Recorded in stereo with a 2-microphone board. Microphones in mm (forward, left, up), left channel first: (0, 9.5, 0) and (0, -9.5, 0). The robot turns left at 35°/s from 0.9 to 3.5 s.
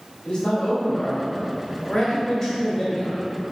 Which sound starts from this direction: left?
A man speaking, at 0.2 s.